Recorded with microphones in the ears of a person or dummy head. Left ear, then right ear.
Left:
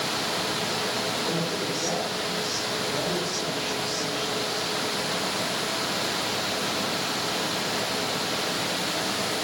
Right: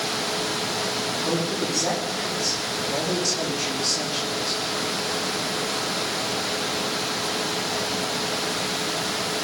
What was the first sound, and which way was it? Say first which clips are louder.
A man speaking: right 2 dB; 50° right (ahead or behind).